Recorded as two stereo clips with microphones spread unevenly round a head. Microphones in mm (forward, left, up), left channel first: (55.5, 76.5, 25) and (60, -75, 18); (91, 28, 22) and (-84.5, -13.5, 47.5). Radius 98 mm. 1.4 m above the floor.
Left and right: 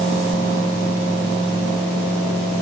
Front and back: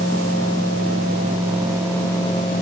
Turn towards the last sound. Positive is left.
No sound to turn to.